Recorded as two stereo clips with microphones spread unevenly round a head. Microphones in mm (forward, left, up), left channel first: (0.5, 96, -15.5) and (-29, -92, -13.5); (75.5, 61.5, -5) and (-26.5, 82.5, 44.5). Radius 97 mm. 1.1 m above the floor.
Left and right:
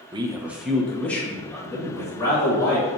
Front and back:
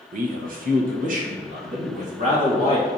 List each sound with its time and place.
0.1 s a man speaking: 160° right, 0.5 m; by 2.9 s 155° left, 2.5 m